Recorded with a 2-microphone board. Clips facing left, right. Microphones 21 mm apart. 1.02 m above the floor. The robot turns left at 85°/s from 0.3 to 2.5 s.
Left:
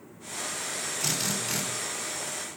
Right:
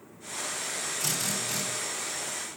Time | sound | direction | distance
1.0 | a drill | 150° left | 2.5 m